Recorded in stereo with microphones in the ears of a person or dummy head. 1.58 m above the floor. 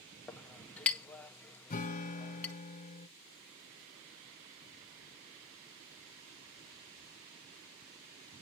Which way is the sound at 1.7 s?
35° left (ahead or behind).